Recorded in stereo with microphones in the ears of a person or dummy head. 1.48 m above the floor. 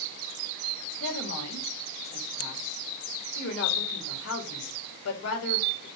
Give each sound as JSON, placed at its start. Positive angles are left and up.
{"t": 1.0, "sound": "a woman speaking", "side_deg": 85, "distance_m": 3.0}